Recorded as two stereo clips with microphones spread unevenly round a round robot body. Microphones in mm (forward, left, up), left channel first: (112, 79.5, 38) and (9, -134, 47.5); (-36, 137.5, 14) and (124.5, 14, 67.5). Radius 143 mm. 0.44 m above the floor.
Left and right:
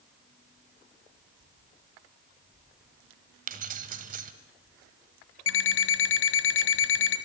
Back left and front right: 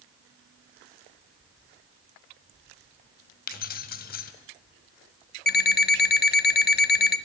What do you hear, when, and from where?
3.5 s keys jangling: 175° right, 1.5 m
5.5 s an alarm clock: 105° left, 1.5 m